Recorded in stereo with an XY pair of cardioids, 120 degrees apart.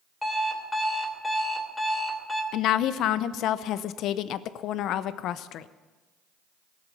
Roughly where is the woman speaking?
Left.